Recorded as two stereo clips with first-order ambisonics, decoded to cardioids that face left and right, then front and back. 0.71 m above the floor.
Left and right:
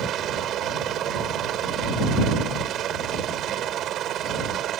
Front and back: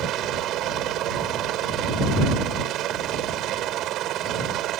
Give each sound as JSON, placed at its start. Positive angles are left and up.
{"t": 0.0, "sound": "a helicopter", "azimuth_deg": -140}